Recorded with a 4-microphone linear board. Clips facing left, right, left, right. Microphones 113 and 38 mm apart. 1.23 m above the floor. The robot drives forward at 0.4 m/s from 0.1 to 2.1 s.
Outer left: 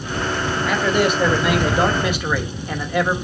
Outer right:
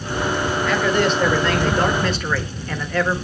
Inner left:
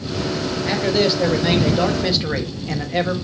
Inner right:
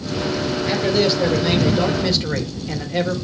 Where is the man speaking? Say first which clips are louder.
Outer left 1 dB, even; 10° left (ahead or behind), 2 m; by 3.1 s 15° left (ahead or behind), 1.6 m.